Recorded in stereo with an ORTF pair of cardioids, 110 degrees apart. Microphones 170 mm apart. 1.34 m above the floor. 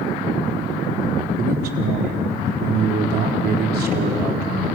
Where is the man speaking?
60° right, 4 m.